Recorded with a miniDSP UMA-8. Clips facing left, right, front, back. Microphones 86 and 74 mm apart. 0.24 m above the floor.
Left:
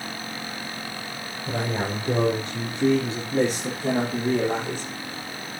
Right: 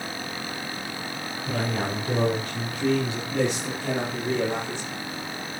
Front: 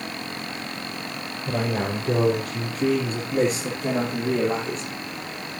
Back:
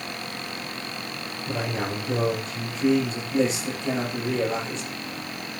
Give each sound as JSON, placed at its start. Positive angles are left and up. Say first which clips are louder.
{"t": 1.5, "sound": "a man speaking", "louder": "left 1 dB, front 3 dB", "azimuth_deg": 20, "distance_m": 6.5}